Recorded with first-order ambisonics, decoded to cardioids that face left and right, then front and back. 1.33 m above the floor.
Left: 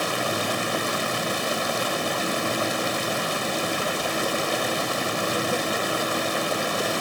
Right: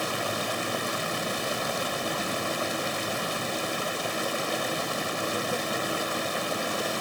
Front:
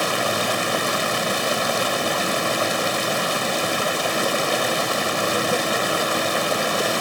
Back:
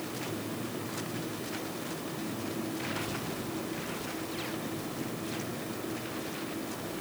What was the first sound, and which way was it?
Running water, 15° left.